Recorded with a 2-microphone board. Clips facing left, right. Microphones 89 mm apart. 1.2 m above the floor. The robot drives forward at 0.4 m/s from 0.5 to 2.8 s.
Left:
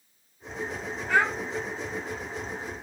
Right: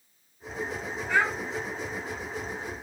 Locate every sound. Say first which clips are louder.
1.1 s a child speaking: left 2 dB; 55° left (ahead or behind), 1.7 m; by 1.3 s 60° left (ahead or behind), 1.6 m